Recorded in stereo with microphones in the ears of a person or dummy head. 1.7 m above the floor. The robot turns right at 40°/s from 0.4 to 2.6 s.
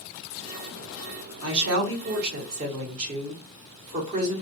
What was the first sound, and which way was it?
A woman speaking, 90° right.